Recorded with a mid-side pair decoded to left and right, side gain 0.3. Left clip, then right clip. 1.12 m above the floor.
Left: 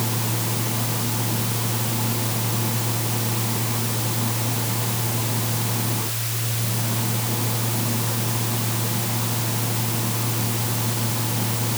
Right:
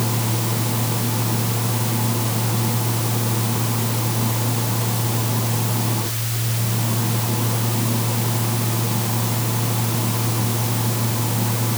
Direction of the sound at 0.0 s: 30° right.